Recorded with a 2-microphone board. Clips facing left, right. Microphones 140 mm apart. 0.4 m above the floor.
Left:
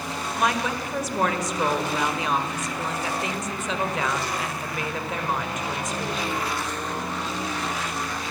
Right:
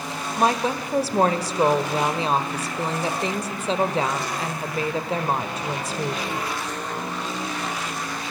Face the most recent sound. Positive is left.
turn(degrees=-30)  # may be behind; listen again after turning